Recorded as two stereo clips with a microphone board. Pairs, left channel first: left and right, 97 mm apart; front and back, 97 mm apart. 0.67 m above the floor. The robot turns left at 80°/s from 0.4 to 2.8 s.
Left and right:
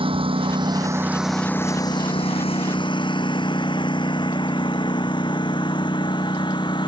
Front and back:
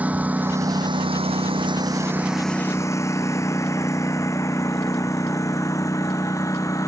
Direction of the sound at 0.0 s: 105° right.